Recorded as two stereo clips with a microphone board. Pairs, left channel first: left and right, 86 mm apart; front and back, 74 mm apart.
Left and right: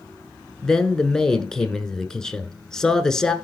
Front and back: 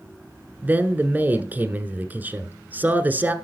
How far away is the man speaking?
About 1.1 m.